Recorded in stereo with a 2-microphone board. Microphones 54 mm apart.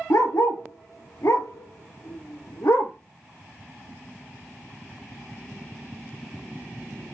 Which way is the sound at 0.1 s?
65° left (ahead or behind).